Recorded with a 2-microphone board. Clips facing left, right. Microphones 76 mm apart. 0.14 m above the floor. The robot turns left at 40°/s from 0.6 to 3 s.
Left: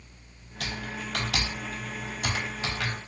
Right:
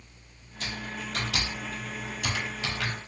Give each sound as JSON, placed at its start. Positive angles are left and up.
{"t": 0.6, "sound": "typing on a keyboard", "side_deg": 70, "distance_m": 0.8}